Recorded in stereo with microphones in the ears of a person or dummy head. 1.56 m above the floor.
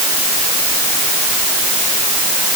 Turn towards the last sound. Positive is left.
No sound to turn to.